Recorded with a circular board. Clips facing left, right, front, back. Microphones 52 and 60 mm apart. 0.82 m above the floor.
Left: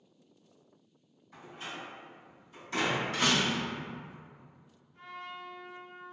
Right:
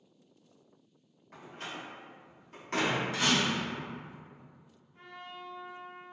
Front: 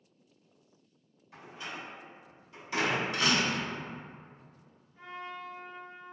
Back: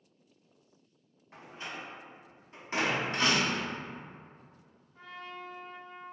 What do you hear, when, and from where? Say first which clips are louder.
1.3 s a door slam: even, even; 125° right, 0.8 m
3.1 s a door slam: left 1 dB, even; 125° left, 0.7 m
4.9 s a trumpet: left 3 dB, front 2 dB; 165° right, 1.4 m